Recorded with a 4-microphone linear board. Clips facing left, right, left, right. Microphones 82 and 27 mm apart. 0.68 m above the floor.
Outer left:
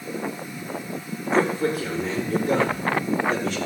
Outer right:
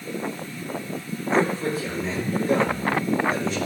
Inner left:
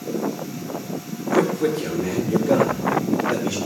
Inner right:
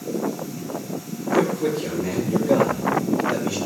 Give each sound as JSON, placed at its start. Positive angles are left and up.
{"t": 1.3, "sound": "a man speaking", "side_deg": 60, "distance_m": 7.5}